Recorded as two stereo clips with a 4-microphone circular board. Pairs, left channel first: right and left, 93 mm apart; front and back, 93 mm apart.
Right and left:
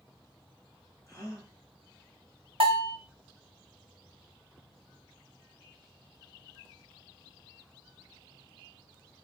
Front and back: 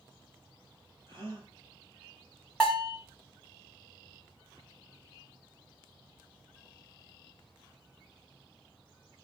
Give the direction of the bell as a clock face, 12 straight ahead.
9 o'clock.